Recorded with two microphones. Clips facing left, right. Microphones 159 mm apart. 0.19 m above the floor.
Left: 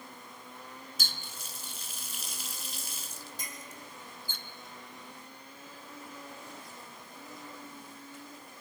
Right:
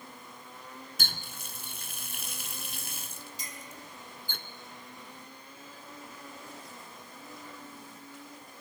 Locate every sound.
1.0 s a running tap: 60° right (ahead or behind), 1.6 m
3.4 s a clink: 50° left (ahead or behind), 5.5 m